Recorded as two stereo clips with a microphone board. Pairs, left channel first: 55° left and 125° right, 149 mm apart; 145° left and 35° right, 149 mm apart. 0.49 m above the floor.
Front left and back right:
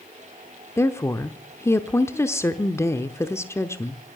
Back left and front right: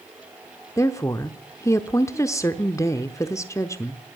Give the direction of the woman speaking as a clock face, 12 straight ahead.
9 o'clock.